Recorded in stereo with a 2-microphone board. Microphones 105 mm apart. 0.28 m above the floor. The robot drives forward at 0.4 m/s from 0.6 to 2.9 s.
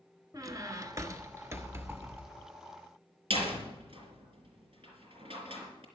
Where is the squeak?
35° right (ahead or behind), 1.0 m; by 2.5 s 20° right (ahead or behind), 1.6 m.